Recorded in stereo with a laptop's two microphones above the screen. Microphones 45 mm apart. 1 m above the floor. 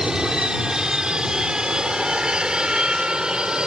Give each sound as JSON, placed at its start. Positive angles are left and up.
{"t": 0.0, "sound": "an aircraft", "side_deg": -20}